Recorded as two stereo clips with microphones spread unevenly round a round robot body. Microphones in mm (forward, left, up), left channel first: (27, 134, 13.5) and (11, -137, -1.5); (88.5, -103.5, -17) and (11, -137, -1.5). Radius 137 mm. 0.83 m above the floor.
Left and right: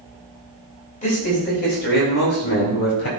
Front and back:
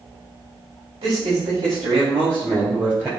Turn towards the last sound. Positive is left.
turn(degrees=120)